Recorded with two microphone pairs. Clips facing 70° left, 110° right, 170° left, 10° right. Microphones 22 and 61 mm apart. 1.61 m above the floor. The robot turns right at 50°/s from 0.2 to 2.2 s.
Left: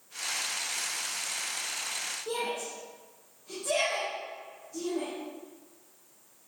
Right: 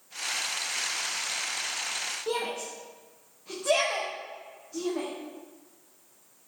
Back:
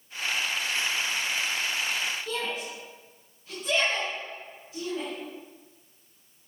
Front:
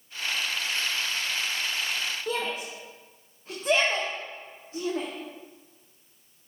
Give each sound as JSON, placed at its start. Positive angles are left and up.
{"t": 2.3, "sound": "a shout", "azimuth_deg": -60, "distance_m": 1.5}